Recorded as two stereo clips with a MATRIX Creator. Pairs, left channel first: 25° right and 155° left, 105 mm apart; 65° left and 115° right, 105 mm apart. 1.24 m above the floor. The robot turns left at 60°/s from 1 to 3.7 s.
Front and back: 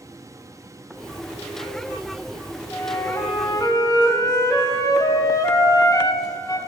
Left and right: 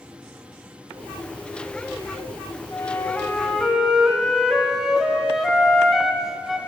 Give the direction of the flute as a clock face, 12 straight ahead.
11 o'clock.